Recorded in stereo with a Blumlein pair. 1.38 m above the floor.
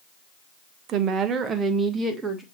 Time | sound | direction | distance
0.9 | a woman speaking | 35° right | 1.0 m